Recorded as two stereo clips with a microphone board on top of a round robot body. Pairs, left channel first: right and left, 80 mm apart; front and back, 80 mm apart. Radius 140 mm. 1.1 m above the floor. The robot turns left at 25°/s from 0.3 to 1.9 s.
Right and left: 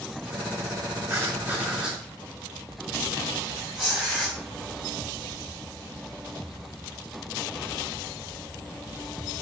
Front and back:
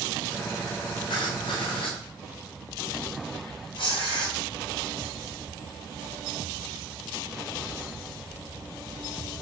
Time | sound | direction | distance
1.1 | writing | 30° left | 3 m
3.8 | tearing paper | 10° left | 4 m